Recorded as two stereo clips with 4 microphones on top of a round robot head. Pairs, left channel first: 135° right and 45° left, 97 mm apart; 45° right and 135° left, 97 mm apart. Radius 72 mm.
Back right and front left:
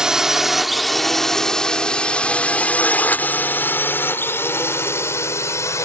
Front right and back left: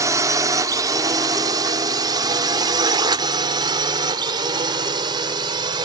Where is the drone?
125° left; by 5.9 s 170° left.